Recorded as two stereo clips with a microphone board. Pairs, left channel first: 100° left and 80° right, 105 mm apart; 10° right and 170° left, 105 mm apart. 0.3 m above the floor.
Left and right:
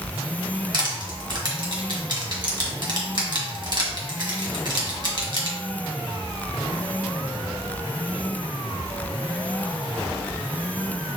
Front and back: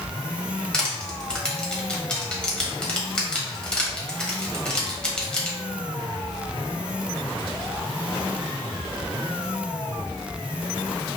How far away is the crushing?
About 1.4 m.